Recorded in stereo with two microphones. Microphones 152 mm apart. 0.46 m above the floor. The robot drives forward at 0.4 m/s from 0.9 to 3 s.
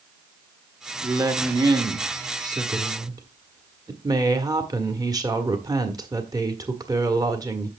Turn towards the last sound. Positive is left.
turn(degrees=-25)  # may be behind; listen again after turning